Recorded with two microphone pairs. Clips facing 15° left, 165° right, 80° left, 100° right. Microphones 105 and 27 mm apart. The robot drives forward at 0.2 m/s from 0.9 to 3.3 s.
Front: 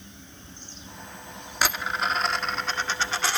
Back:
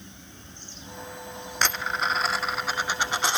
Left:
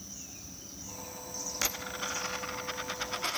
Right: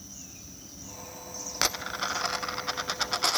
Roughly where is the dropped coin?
Ahead right.